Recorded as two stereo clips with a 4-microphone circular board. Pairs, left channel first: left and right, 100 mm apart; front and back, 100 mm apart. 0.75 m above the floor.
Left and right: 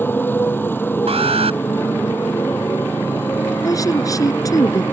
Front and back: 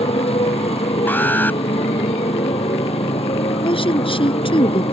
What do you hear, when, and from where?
0.0 s a motorcycle: 20° left
1.1 s an alarm: 70° right
3.6 s a woman speaking: 35° left